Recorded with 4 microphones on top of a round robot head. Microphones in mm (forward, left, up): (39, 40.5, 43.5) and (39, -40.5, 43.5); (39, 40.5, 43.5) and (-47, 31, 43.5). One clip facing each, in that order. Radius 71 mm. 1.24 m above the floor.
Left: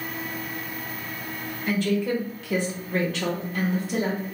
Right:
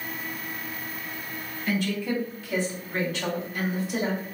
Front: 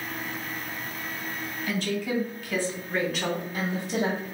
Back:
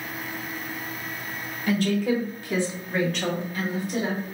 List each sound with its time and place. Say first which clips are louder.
1.7 s a woman speaking: left 3 dB, back 6 dB; 150° left, 1.5 m; by 4.2 s 60° left, 1.8 m